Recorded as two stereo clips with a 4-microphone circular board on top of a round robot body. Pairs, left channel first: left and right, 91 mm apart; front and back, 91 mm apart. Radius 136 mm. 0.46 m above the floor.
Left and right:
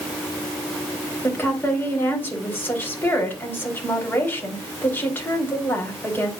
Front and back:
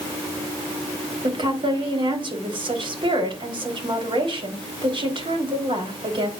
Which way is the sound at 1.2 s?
155° left.